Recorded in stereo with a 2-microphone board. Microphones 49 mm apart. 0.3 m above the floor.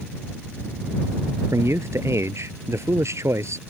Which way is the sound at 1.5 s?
65° right (ahead or behind).